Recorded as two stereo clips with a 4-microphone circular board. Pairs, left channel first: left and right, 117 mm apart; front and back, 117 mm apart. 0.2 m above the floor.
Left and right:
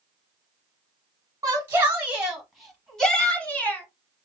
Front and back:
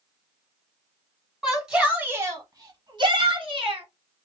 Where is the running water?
I don't hear running water.